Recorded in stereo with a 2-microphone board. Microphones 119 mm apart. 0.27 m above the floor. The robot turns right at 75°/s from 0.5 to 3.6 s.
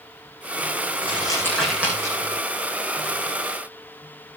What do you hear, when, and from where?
1.0 s crumpling: 50° left (ahead or behind), 8.5 m; by 2.3 s 50° right (ahead or behind), 8.5 m